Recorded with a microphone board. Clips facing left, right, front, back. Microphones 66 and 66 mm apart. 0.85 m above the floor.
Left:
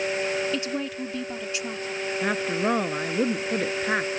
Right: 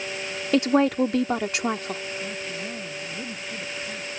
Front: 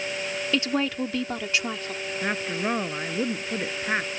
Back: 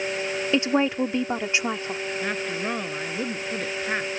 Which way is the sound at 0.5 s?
115° right.